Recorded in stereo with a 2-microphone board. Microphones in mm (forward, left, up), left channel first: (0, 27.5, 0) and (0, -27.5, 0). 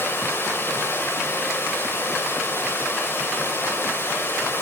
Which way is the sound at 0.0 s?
45° left (ahead or behind).